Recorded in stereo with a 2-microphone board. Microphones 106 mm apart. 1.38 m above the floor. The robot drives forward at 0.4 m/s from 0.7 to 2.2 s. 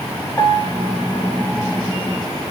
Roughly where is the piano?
Left.